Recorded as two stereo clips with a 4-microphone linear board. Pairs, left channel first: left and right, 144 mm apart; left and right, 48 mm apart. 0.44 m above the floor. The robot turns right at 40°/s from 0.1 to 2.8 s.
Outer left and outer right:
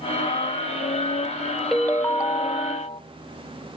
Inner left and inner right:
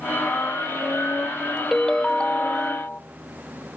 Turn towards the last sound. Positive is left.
turn(degrees=45)